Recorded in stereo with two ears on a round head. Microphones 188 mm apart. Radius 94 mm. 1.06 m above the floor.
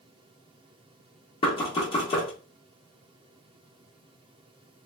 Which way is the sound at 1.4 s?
25° left (ahead or behind).